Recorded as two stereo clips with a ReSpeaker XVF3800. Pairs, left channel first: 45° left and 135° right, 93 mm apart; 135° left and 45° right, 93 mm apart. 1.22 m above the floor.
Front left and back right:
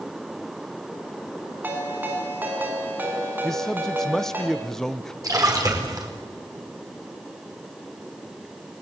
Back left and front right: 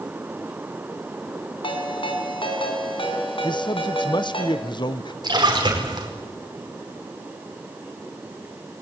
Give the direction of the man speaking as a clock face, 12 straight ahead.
8 o'clock.